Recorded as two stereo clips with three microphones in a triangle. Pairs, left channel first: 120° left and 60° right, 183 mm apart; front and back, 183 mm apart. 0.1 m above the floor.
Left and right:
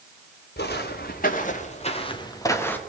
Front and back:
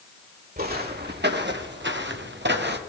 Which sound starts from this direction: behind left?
Footsteps, at 0.6 s.